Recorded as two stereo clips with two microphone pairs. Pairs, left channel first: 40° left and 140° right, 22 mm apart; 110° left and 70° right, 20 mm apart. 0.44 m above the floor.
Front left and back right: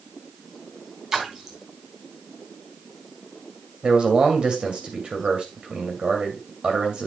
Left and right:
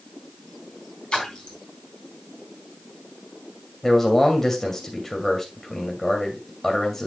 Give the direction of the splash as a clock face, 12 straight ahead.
7 o'clock.